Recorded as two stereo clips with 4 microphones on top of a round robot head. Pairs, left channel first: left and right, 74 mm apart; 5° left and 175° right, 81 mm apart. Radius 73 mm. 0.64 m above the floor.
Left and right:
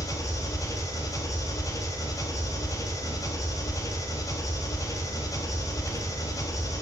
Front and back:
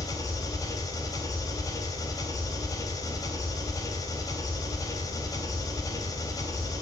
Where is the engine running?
50° left, 3.5 m.